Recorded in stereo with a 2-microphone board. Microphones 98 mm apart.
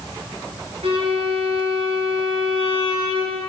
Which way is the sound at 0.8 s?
75° right (ahead or behind).